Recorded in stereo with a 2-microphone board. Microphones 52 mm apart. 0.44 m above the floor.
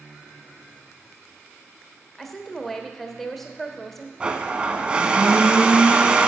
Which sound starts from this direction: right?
A blender, at 4.2 s.